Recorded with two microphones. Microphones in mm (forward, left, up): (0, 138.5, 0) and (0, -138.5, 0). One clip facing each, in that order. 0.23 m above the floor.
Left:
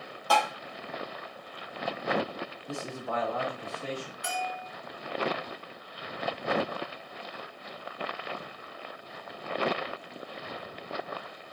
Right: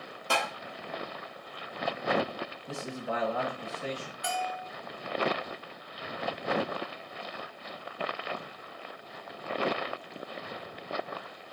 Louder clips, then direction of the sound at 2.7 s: Even; 20° right (ahead or behind).